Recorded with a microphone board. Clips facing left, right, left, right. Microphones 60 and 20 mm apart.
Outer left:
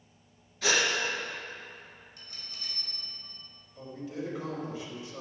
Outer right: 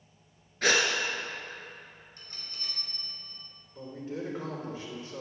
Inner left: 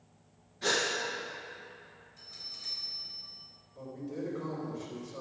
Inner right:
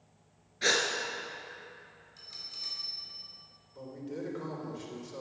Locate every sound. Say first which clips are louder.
0.6 s a gasp: outer right 2 dB, inner right 2 dB; 50° right (ahead or behind), 1.8 m
2.2 s a bell: outer right 3 dB, inner right 2 dB; 45° right (ahead or behind), 2.5 m
3.8 s a man speaking: outer right 1 dB, inner left 1 dB; 35° right (ahead or behind), 3 m